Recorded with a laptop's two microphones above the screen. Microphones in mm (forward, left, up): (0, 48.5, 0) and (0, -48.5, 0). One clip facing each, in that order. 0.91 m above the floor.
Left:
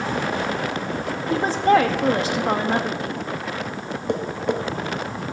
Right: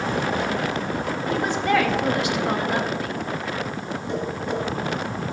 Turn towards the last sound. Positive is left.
turn(degrees=60)  # may be behind; listen again after turning